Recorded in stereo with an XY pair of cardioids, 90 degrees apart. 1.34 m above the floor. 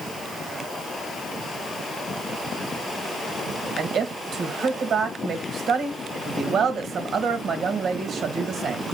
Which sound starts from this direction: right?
A woman speaking, at 3.8 s.